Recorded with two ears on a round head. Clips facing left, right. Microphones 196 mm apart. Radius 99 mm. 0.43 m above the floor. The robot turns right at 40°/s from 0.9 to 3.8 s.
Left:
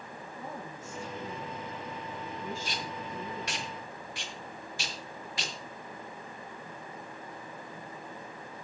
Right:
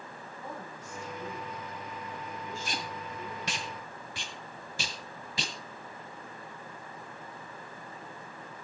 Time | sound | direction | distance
0.3 | a woman speaking | 25° left | 3.5 m
2.6 | tape being pulled | 40° right (ahead or behind) | 1.7 m